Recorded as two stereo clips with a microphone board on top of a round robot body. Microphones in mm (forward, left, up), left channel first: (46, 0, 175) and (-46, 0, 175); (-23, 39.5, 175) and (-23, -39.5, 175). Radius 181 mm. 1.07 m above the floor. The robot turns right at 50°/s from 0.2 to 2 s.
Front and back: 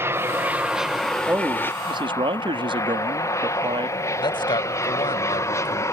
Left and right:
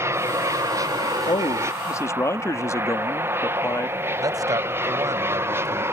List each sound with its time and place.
0.0 s an aircraft: 130° right; by 5.9 s 45° right
1.3 s a man speaking: 110° left; by 4.0 s 145° left
4.2 s a man speaking: 40° right